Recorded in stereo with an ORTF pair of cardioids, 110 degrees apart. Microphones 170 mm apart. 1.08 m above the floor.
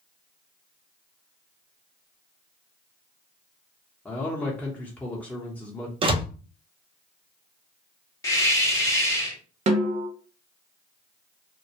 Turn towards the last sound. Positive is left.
turn(degrees=-40)